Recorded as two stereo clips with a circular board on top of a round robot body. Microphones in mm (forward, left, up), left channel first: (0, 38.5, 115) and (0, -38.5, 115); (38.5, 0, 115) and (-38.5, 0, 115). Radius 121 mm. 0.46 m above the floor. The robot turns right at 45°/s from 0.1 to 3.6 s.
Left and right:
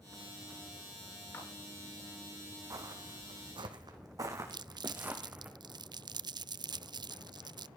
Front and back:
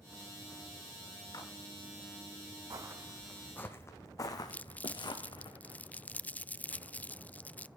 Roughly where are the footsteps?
Behind right.